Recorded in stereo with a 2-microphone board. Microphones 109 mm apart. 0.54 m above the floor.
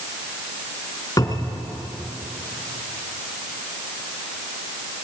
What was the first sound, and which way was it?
A cupboard door, 30° left (ahead or behind).